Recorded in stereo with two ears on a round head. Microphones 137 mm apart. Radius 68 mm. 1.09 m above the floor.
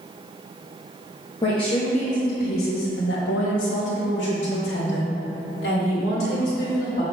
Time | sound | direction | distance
1.4 | a woman speaking | 25° left (ahead or behind) | 1.1 m